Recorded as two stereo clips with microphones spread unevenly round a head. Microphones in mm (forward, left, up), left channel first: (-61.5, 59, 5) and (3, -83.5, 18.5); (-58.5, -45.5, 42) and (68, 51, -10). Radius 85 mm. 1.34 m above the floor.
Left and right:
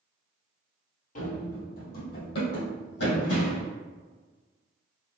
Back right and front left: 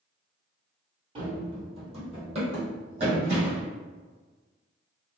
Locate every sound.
1.1 s running footsteps: 105° left, 1.7 m; by 3.7 s 95° left, 4 m